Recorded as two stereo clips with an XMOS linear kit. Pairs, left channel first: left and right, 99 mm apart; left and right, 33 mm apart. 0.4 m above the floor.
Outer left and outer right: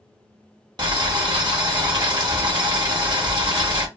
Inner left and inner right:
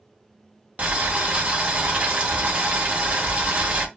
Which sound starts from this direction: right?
Boiling, at 0.8 s.